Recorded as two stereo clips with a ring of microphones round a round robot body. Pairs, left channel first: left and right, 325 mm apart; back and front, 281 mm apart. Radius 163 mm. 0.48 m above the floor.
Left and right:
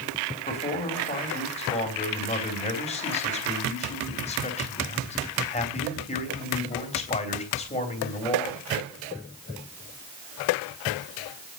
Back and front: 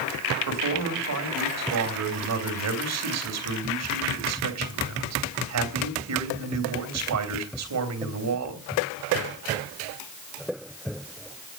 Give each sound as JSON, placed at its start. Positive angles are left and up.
{"t": 0.5, "sound": "a man speaking", "azimuth_deg": 20, "distance_m": 3.0}